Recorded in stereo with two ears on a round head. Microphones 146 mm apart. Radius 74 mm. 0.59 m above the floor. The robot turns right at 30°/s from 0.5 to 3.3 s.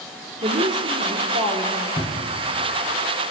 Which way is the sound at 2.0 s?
35° left (ahead or behind).